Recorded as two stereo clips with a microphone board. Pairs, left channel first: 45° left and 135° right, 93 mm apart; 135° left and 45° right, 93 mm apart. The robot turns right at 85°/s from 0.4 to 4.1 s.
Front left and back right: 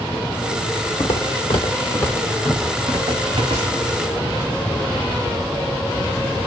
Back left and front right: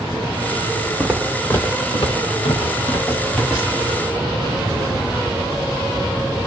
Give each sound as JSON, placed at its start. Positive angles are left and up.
{"t": 1.0, "sound": "footsteps", "azimuth_deg": 25, "distance_m": 1.5}